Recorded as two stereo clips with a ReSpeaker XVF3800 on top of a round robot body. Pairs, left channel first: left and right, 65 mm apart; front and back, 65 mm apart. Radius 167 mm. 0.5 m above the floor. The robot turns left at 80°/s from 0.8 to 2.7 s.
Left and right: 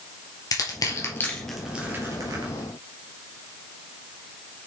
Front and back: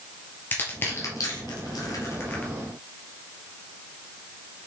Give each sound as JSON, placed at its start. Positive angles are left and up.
{"t": 0.5, "sound": "crushing", "azimuth_deg": 60, "distance_m": 2.5}